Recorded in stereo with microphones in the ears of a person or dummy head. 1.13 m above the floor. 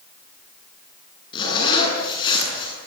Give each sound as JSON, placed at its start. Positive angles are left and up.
{"t": 1.3, "sound": "a zipper", "side_deg": 25, "distance_m": 8.5}